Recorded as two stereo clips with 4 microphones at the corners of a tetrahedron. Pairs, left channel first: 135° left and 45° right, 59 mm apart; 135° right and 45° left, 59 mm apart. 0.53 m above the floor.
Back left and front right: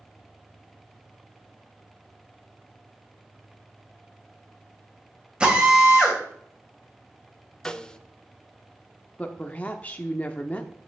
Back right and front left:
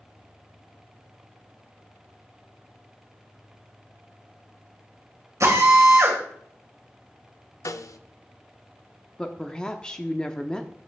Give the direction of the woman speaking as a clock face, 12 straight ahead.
7 o'clock.